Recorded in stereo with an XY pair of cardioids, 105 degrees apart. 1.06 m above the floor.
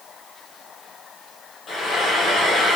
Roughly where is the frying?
Ahead left.